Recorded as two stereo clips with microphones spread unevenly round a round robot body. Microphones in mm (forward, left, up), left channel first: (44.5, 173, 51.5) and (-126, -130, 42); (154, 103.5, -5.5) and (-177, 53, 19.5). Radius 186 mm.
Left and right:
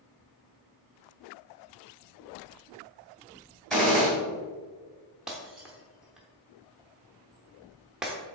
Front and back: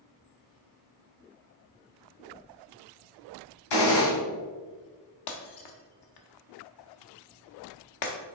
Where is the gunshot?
30° right, 2.5 m.